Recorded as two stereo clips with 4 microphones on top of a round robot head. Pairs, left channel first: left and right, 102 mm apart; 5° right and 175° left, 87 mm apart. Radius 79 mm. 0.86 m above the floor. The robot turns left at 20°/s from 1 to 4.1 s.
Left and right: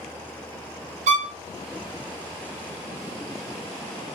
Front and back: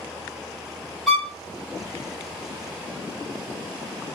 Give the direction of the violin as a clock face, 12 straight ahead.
3 o'clock.